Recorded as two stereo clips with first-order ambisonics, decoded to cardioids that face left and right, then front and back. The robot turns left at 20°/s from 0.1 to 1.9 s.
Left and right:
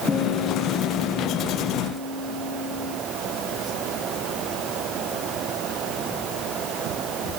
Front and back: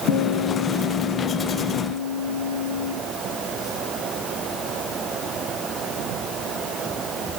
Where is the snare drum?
No snare drum in this recording.